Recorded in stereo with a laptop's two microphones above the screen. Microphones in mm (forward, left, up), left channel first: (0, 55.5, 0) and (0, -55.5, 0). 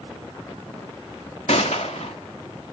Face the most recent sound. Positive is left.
turn(degrees=80)